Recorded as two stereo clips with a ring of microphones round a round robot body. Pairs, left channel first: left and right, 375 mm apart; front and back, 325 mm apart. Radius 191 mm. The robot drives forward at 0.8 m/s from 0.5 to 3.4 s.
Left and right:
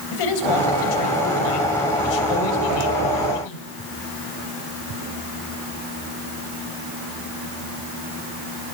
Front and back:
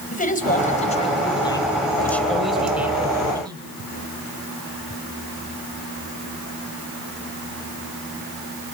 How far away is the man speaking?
About 4 m.